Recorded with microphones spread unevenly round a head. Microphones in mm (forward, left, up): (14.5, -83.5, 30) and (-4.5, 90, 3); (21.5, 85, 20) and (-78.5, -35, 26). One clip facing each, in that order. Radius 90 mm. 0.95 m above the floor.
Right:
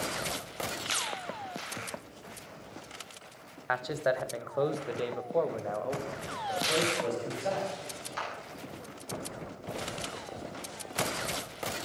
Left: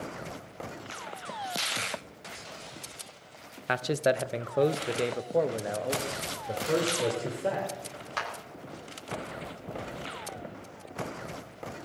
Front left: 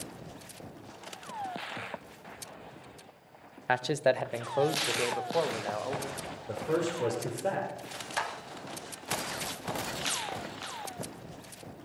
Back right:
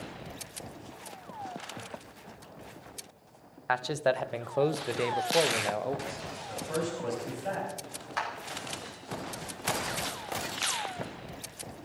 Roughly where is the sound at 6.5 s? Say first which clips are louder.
Left 2 dB, front left 3 dB; ahead left.